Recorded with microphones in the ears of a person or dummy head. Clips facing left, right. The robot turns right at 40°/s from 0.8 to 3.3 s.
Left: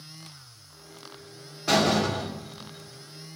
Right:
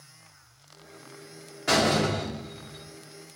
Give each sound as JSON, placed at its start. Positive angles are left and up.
{"t": 1.7, "sound": "a door slam", "azimuth_deg": -170, "distance_m": 1.1}